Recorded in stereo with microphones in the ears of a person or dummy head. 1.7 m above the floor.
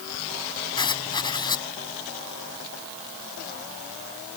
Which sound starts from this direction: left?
Writing, at 0.8 s.